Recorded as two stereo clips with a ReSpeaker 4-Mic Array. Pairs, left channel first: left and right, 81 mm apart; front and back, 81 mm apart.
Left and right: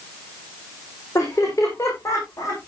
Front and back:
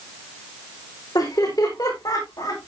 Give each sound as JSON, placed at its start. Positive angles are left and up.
{"t": 1.1, "sound": "laughter", "azimuth_deg": 35, "distance_m": 6.5}